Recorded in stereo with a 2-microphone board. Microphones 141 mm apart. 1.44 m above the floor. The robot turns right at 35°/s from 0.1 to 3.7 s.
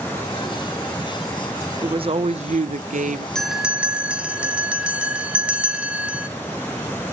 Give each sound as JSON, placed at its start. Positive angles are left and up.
{"t": 1.8, "sound": "a woman speaking", "azimuth_deg": -140, "distance_m": 0.8}
{"t": 3.4, "sound": "a bell", "side_deg": 5, "distance_m": 1.7}